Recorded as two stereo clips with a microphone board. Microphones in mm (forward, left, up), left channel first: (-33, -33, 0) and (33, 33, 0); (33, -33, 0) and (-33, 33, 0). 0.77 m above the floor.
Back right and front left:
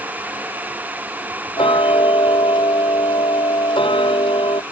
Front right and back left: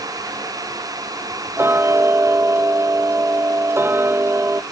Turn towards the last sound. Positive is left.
turn(degrees=-160)